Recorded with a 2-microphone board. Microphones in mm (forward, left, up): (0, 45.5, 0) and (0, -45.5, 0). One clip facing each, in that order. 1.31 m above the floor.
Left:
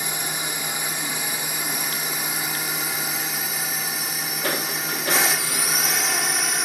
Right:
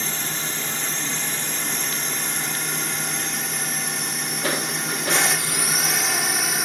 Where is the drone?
10° left (ahead or behind); by 6.7 s centre (ahead or behind).